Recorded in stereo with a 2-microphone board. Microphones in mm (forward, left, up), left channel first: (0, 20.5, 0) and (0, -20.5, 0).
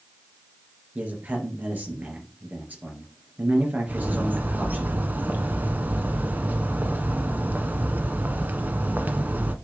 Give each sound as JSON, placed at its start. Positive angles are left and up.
{"t": 0.9, "sound": "a man speaking", "side_deg": -45, "distance_m": 3.5}
{"t": 3.9, "sound": "a bird", "side_deg": -50, "distance_m": 1.0}